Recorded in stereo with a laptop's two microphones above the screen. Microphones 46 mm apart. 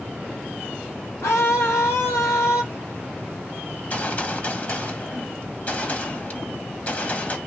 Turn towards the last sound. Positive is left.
turn(degrees=40)  # may be behind; listen again after turning